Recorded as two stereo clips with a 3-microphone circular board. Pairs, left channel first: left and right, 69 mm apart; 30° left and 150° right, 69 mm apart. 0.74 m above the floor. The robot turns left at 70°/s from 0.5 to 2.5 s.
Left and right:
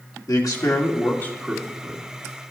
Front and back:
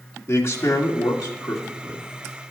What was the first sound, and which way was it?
A man speaking, 75° left.